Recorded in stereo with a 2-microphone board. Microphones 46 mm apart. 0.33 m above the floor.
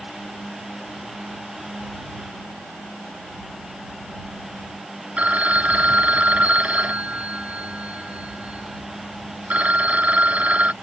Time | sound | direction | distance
5.2 | a phone ringing | 30° right (ahead or behind) | ?